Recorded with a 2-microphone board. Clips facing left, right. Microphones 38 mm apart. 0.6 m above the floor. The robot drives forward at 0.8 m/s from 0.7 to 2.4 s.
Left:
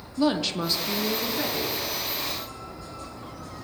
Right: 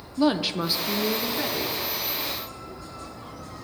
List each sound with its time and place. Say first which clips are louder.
0.2 s a woman speaking: right 1 dB; 10° right (ahead or behind), 0.6 m; by 1.8 s 5° right (ahead or behind), 1.2 m